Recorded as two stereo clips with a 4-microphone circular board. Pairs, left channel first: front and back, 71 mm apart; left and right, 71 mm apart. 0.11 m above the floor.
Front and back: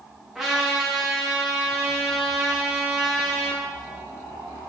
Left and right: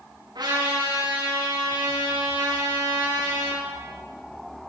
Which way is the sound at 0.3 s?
95° right.